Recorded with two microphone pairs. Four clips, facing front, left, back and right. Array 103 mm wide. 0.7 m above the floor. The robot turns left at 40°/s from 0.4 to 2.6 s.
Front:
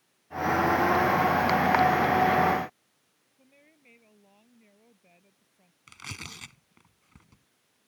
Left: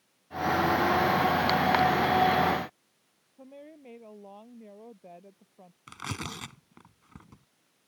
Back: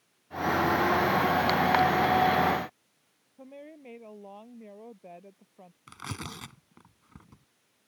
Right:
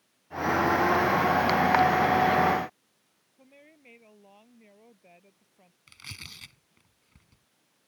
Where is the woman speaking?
145° left.